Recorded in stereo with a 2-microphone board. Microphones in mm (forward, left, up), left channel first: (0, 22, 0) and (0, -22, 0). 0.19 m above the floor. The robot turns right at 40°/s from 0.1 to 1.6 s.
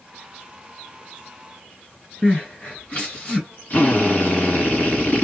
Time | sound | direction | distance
2.2 | crying | 40° left (ahead or behind) | 2 m
3.7 | a drill | 40° left (ahead or behind) | 1.9 m